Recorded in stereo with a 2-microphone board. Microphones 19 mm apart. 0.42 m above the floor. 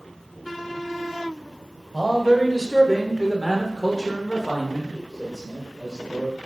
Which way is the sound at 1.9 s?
20° right (ahead or behind).